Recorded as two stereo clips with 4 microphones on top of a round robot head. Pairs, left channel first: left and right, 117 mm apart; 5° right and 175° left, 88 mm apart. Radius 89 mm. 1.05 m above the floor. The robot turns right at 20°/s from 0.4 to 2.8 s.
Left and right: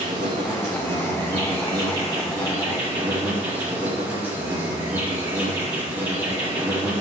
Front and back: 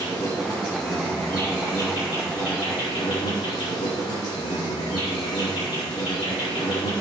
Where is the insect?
65° right, 4.5 m; by 7.0 s 20° right, 4.5 m.